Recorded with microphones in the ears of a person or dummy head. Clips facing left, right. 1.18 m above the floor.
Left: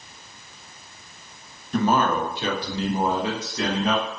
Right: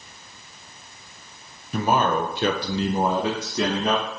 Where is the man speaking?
5° right (ahead or behind), 0.6 m; by 4.0 s 75° right (ahead or behind), 1.1 m.